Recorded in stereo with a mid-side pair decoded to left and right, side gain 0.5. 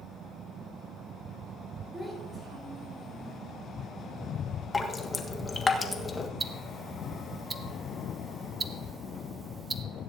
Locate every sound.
1.9 s a child speaking: 5° right, 6 m; by 3.4 s 25° right, 5.5 m
4.7 s dripping: 25° left, 1.5 m
6.4 s ticking: 25° right, 1.1 m